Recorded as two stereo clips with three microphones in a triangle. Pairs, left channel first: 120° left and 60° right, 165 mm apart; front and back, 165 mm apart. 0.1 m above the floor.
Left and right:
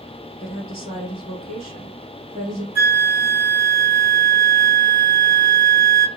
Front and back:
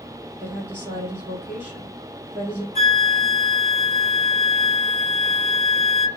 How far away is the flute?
About 0.7 m.